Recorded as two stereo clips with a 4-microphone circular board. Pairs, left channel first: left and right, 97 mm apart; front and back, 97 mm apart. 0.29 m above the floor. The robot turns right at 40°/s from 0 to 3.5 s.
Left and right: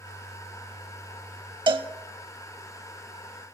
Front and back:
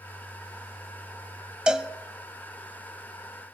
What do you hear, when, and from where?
1.7 s a cowbell: 100° right, 0.6 m; by 1.9 s 90° right, 0.6 m